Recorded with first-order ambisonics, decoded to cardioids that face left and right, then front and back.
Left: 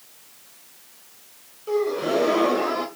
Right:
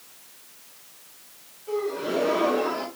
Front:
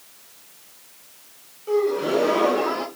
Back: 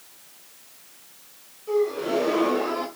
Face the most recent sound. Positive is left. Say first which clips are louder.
# left 5 dB, front 3 dB
turn(degrees=55)